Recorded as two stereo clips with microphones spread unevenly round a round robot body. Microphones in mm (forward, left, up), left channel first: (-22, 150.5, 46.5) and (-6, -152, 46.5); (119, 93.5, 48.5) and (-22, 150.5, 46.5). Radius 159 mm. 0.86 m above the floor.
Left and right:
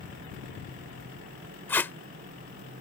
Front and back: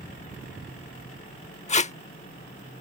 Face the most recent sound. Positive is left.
turn(degrees=10)